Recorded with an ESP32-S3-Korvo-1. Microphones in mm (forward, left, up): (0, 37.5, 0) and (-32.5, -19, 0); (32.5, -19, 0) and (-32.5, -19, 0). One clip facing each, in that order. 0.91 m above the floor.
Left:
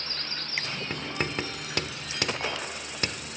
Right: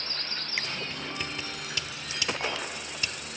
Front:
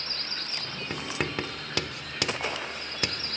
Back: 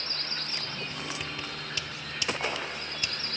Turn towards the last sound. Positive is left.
turn(degrees=25)